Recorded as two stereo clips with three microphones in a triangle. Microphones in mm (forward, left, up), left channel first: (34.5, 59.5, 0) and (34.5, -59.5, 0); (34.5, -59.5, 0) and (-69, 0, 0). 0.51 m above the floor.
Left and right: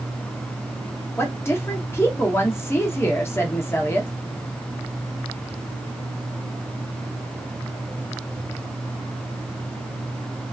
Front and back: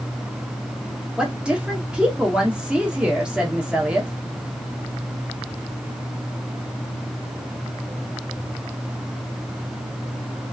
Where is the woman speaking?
80° left, 0.8 m.